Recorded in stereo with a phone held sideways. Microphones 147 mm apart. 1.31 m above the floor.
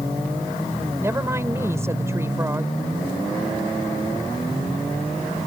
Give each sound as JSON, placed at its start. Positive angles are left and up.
{"t": 1.0, "sound": "a woman speaking", "side_deg": -15}